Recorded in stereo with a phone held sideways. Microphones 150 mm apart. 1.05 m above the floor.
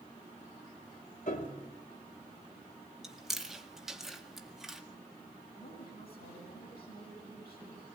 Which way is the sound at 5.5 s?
85° left.